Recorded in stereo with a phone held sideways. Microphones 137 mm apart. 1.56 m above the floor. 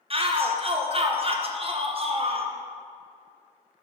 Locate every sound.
0.1 s a shout: 45° right (ahead or behind), 0.8 m